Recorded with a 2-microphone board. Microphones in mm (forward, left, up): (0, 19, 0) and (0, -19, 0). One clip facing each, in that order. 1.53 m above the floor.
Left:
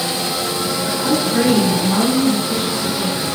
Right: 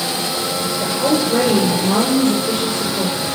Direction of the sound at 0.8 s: 60° right (ahead or behind).